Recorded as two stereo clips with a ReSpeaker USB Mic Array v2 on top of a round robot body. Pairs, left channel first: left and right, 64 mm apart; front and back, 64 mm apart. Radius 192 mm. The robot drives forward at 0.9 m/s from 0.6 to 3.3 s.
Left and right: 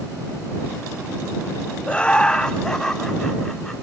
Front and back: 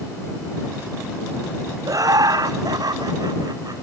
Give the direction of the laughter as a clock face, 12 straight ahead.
7 o'clock.